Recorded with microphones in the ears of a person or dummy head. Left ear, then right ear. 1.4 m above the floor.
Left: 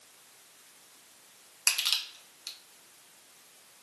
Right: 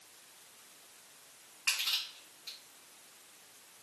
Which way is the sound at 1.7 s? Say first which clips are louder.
Left 4 dB; 80° left.